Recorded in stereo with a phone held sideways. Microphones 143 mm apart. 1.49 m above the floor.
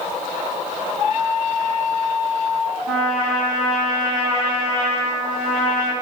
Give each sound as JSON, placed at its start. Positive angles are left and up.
{"t": 2.9, "sound": "a trumpet", "side_deg": 0, "distance_m": 1.1}